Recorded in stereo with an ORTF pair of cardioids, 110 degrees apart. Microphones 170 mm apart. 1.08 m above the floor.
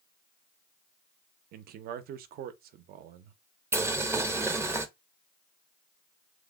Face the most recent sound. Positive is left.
turn(degrees=-15)